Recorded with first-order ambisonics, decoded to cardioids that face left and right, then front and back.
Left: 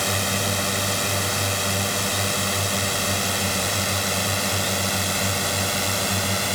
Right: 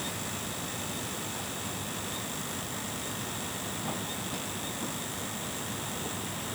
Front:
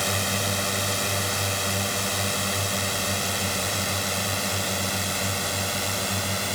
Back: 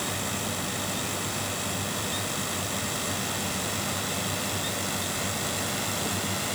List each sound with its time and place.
0.0 s a drone: 60° left; by 6.6 s 70° left